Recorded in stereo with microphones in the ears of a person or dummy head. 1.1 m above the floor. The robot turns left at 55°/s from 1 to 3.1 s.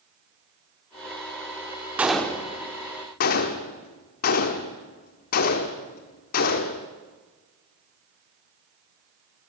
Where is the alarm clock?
I don't hear an alarm clock.